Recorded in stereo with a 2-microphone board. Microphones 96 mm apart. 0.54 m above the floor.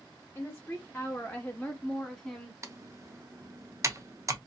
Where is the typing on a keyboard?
35° right (ahead or behind), 0.6 m.